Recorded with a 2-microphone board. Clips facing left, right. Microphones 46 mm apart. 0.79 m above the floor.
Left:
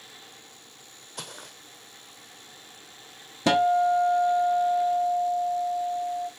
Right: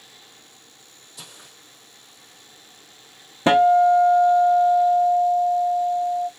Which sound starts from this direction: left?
Footsteps, at 1.2 s.